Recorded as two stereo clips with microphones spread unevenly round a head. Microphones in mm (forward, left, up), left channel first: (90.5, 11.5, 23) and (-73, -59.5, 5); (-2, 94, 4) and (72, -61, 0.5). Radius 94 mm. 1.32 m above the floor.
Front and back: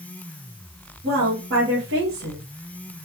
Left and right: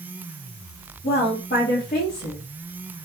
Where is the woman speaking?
170° left, 1.9 m.